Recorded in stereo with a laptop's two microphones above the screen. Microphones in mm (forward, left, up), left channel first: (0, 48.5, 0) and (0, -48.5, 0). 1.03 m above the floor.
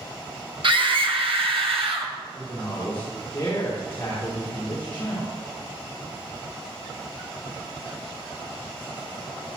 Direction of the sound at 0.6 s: 55° right (ahead or behind).